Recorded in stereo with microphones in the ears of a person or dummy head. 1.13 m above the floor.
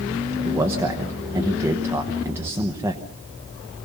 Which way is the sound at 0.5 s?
15° right (ahead or behind).